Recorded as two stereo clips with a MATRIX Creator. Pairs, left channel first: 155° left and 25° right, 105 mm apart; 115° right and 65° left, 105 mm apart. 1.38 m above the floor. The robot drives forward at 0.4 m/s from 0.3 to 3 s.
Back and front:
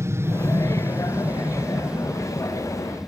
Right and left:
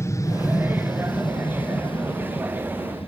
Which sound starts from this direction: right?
An aircraft, at 0.0 s.